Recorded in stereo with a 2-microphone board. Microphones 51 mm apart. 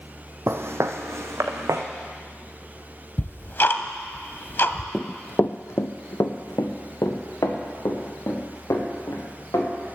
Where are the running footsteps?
Centre (ahead or behind), 0.6 m; by 9.7 s 75° left (ahead or behind), 4.5 m.